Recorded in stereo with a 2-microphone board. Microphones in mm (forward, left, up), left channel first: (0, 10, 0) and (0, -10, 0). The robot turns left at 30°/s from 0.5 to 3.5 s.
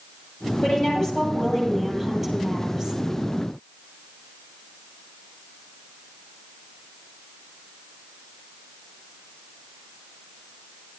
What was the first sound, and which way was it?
A woman speaking, 40° left.